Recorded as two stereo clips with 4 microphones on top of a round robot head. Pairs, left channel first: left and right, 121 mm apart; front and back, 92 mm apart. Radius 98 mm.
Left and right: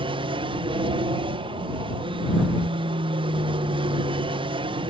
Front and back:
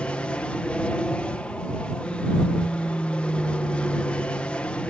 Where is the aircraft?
75° right.